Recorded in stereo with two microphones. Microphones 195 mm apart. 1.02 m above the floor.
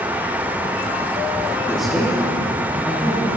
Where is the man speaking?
Centre (ahead or behind), 2.5 m.